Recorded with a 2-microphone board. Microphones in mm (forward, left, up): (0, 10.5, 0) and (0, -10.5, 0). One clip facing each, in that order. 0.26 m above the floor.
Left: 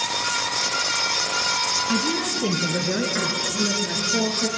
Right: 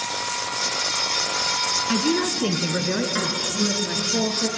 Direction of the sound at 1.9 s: 65° right (ahead or behind).